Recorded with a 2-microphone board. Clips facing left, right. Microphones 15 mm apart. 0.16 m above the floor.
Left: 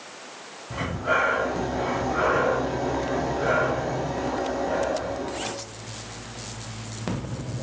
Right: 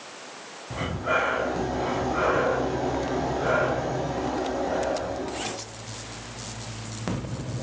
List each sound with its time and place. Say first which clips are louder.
0.7 s breathing: left 1 dB; 5° left (ahead or behind), 4.5 m